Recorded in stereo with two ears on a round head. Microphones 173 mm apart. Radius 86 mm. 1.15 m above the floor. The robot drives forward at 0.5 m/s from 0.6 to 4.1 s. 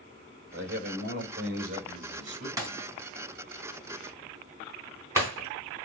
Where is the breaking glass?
20° right (ahead or behind), 3 m; by 5.5 s 15° right (ahead or behind), 3.5 m.